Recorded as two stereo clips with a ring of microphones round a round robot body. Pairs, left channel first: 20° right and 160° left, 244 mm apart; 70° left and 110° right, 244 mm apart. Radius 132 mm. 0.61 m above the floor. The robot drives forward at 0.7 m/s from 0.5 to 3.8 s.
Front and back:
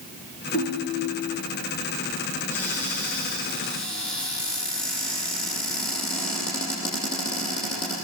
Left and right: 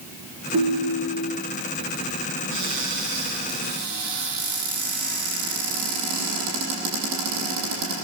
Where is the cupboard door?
105° right, 9.5 m; by 8.0 s 110° right, 9.5 m.